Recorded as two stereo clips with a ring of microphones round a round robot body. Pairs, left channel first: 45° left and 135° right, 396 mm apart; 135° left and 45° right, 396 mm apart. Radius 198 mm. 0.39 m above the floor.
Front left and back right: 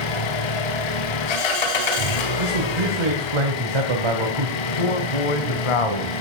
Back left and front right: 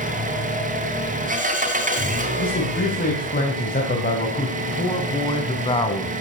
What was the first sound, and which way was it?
An engine running, 25° left.